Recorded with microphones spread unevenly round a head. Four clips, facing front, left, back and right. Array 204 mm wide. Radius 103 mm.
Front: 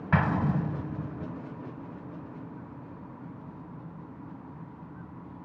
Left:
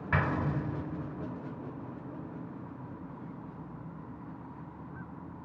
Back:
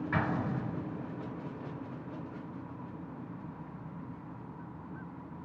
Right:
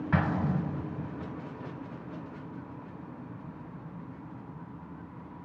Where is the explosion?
5° right, 2.5 m.